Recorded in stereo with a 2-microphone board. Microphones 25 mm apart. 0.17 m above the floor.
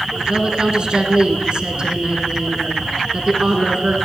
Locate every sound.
0.3 s a woman speaking: 40° right (ahead or behind), 1.8 m